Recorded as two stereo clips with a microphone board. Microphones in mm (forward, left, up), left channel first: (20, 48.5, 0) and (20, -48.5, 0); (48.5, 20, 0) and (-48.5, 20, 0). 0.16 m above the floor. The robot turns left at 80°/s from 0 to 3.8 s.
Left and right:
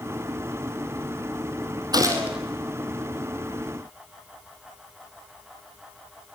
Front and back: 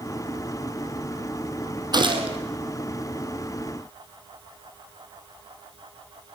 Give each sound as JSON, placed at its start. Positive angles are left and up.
{"t": 1.9, "sound": "a gunshot", "azimuth_deg": -135, "distance_m": 3.0}